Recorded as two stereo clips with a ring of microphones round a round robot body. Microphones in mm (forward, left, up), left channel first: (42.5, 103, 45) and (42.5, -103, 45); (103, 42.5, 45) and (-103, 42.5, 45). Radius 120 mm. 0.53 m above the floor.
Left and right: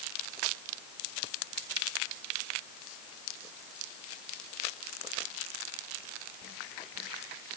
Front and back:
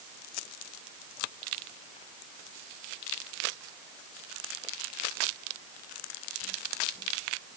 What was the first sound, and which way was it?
Only background noise.